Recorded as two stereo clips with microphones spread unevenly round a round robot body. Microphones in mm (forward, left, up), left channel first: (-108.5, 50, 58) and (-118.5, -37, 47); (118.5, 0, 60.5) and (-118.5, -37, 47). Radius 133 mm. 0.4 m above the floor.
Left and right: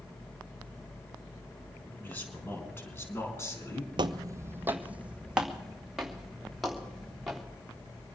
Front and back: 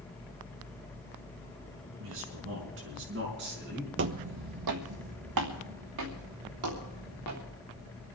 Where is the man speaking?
155° left, 5 m; by 3.9 s 140° left, 5 m.